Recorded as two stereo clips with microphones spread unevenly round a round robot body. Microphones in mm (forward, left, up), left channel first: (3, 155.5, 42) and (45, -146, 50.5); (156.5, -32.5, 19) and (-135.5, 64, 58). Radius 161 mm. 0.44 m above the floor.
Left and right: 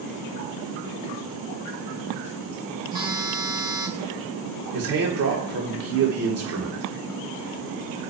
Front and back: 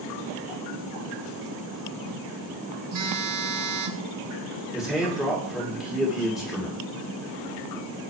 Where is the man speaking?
105° right, 2 m.